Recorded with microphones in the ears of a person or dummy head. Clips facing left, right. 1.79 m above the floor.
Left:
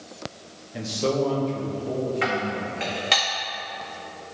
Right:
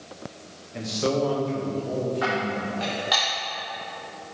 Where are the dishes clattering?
35° left (ahead or behind), 2 m.